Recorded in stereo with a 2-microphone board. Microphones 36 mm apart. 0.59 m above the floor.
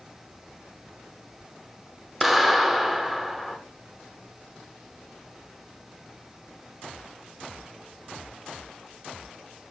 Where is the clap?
Centre (ahead or behind), 1.0 m.